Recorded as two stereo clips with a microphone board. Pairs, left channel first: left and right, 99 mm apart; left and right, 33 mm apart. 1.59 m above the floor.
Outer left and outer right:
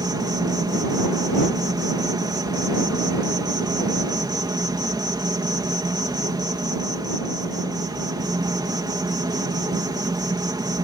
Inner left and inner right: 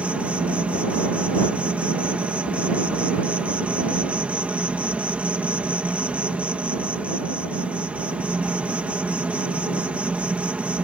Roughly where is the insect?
Right.